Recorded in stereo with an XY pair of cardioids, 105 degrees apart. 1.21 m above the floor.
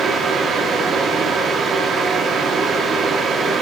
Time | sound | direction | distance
0.0 | a fan | 55° right | 2.5 m